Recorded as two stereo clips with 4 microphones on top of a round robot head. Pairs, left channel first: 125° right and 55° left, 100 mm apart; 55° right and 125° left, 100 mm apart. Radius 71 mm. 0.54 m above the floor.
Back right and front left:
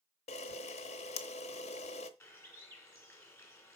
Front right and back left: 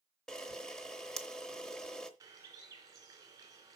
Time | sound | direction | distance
0.3 | a camera shutter | 140° right | 0.9 m
2.2 | a bird | 175° left | 2.5 m